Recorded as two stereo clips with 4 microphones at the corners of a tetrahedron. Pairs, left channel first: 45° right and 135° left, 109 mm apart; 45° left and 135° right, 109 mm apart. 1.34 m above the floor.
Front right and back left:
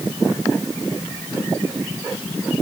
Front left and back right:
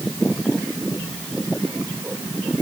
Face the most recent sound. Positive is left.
No sound to turn to.